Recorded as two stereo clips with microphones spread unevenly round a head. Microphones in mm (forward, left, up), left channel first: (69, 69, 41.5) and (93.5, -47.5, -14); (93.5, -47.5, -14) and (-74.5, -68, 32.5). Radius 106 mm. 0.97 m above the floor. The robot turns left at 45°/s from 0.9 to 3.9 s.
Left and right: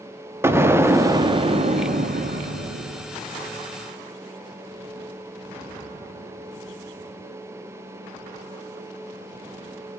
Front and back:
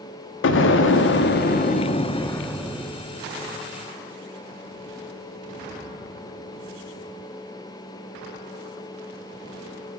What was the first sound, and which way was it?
An explosion, 5° right.